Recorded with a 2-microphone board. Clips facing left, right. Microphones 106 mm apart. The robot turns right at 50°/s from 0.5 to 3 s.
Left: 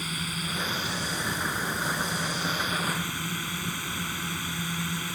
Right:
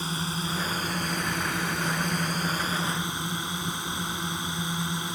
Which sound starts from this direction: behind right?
A drone, at 0.0 s.